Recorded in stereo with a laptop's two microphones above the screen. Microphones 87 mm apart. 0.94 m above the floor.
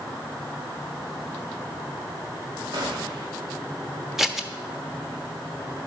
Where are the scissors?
5° right (ahead or behind), 1.1 m.